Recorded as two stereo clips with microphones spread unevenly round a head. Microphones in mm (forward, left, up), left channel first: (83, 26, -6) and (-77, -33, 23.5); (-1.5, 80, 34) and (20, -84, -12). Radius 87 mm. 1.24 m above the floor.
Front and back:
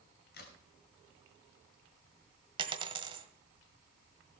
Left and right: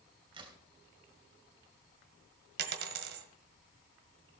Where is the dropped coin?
115° right, 1.5 m.